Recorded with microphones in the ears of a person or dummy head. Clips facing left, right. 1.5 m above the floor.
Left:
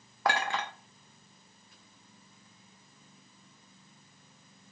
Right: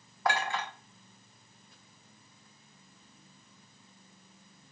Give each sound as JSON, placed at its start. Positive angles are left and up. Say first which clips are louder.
{"t": 0.2, "sound": "a clink", "louder": "left 1 dB", "side_deg": 55, "distance_m": 0.7}